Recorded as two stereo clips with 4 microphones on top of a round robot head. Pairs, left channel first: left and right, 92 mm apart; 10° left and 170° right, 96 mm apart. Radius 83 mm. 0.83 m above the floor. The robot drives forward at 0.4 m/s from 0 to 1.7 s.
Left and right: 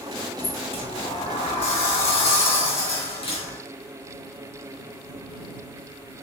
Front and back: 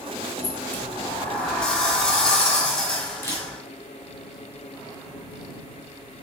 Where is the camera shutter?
75° left, 4 m.